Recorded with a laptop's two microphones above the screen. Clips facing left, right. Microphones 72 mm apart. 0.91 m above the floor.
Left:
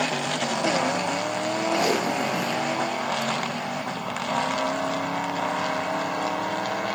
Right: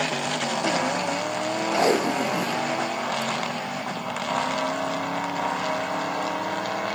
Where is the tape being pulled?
30° right (ahead or behind), 0.8 m.